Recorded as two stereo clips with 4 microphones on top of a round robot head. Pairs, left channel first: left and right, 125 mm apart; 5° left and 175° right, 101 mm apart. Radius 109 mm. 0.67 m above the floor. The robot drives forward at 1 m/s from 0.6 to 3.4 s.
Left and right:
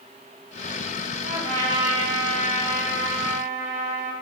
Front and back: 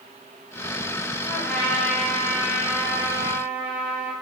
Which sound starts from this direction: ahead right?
A trumpet, at 1.2 s.